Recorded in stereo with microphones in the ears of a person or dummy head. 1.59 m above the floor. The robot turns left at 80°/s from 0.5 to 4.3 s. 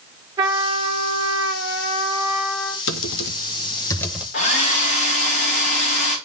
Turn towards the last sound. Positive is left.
turn(degrees=40)  # may be behind; listen again after turning